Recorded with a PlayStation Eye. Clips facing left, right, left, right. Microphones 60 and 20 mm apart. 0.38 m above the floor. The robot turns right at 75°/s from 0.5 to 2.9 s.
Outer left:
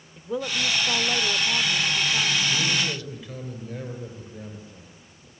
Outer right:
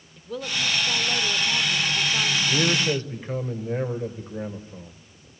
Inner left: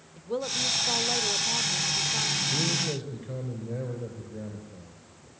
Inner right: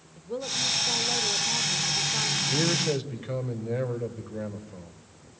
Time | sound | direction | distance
0.2 | a woman speaking | 20° left (ahead or behind) | 0.8 m
2.5 | a man speaking | 90° right | 1.8 m